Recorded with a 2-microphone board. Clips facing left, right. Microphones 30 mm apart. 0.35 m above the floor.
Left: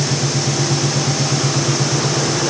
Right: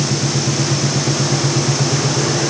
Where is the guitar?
No guitar in this recording.